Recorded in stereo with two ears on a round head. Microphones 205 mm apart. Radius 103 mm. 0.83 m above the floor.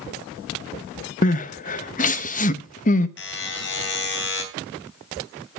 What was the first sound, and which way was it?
Crying, 35° left (ahead or behind).